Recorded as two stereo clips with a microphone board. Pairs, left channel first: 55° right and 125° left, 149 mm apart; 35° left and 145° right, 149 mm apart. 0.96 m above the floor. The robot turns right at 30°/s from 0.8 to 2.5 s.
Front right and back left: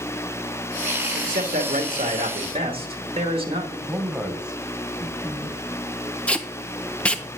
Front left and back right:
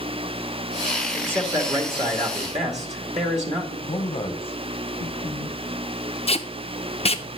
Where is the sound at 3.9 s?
45° left, 1.0 m.